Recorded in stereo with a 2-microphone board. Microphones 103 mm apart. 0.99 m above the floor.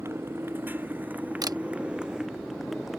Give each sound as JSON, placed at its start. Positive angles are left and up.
{"t": 0.0, "sound": "a motorcycle", "side_deg": -25}
{"t": 1.4, "sound": "a camera shutter", "side_deg": -40}